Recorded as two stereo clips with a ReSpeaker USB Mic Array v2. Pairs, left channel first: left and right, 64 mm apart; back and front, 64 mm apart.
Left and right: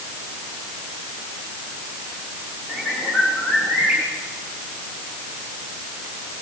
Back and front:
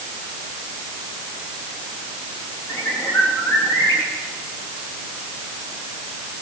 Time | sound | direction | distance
2.7 | a bird | 155° right | 4.5 m